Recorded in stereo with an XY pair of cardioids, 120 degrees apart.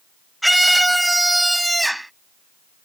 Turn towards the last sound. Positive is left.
turn(degrees=-5)